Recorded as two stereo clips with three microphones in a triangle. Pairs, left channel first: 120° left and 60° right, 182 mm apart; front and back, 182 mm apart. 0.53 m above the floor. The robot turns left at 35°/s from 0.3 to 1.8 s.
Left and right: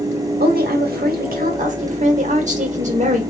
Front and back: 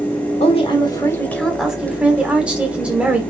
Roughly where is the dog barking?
No dog barking in this recording.